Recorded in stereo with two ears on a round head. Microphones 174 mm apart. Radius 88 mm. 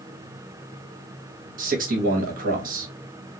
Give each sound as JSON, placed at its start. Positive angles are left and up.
{"t": 1.6, "sound": "a man speaking", "side_deg": -45, "distance_m": 1.3}